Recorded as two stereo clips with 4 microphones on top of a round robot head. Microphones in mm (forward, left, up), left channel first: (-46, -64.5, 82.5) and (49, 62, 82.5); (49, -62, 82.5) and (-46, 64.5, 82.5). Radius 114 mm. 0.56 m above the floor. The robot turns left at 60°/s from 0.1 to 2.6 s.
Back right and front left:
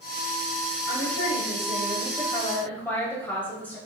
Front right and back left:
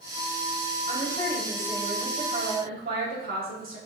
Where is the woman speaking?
100° right, 3.5 m; by 3.8 s 155° left, 3.5 m.